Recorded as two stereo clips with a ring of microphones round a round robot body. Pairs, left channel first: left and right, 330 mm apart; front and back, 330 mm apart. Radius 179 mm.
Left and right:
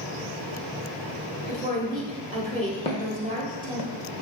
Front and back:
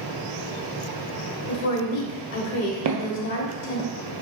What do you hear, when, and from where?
1.5 s a woman speaking: 25° right, 1.2 m
2.9 s footsteps: 165° left, 0.6 m; by 3.9 s 100° left, 0.5 m